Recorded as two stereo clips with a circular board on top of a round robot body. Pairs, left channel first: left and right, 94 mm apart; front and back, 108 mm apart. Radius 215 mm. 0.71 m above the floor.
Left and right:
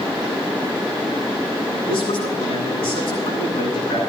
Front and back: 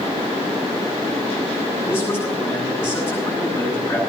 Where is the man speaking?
70° left, 8 m.